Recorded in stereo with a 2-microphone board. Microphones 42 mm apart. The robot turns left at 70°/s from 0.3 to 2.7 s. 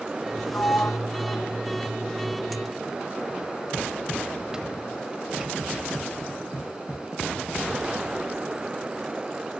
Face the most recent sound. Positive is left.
turn(degrees=-15)  # may be behind; listen again after turning